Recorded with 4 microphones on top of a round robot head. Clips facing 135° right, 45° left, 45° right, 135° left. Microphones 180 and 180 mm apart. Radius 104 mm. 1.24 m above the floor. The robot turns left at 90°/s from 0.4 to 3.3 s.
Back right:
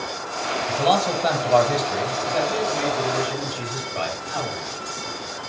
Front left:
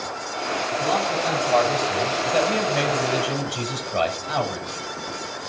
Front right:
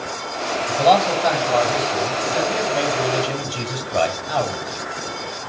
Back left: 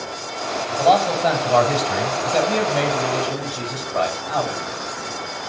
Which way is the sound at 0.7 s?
110° right.